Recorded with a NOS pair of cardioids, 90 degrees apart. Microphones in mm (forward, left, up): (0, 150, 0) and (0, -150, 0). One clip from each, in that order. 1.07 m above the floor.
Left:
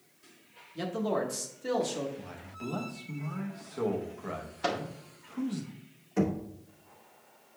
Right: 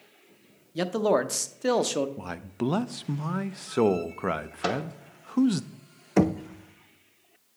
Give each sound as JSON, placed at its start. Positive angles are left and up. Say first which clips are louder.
{"t": 0.8, "sound": "a man speaking", "louder": "right 7 dB", "azimuth_deg": -55, "distance_m": 0.7}
{"t": 2.2, "sound": "a man speaking", "louder": "right 9 dB", "azimuth_deg": -70, "distance_m": 0.6}
{"t": 4.6, "sound": "a microwave", "louder": "right 2 dB", "azimuth_deg": -15, "distance_m": 0.9}
{"t": 6.2, "sound": "knocking", "louder": "right 7 dB", "azimuth_deg": -55, "distance_m": 0.6}